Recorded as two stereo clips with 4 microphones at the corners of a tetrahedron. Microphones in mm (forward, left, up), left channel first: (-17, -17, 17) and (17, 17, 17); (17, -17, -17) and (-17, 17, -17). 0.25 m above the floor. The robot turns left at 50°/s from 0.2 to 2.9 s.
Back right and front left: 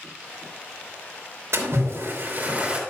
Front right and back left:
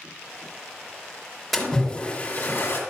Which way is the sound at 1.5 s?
45° left.